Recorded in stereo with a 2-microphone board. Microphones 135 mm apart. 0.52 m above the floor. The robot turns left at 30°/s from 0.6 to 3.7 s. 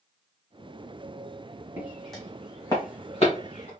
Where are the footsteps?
15° right (ahead or behind), 1.8 m; by 3.7 s 65° left (ahead or behind), 2.5 m.